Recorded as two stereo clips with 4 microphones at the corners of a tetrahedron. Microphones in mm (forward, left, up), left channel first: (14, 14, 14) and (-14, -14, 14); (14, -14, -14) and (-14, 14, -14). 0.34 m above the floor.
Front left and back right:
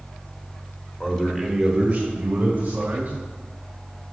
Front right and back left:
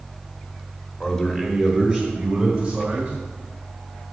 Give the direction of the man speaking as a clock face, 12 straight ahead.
12 o'clock.